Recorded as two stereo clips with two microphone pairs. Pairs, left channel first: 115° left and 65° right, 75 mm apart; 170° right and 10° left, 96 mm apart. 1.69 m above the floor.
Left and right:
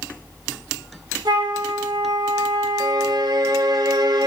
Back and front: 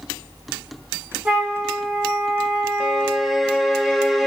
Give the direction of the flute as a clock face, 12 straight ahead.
2 o'clock.